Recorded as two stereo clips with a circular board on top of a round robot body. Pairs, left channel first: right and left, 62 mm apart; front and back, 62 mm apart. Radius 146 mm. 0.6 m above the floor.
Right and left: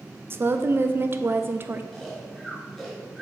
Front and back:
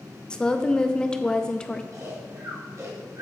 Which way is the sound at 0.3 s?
65° left.